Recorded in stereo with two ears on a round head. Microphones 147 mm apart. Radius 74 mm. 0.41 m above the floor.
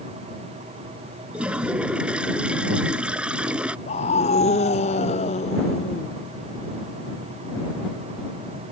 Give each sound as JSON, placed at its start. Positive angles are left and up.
{"t": 1.3, "sound": "a toilet flushing", "side_deg": -5}
{"t": 3.9, "sound": "a scream", "side_deg": 40}